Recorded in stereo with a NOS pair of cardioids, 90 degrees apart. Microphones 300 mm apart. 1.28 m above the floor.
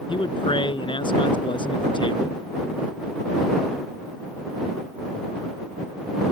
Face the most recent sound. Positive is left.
turn(degrees=15)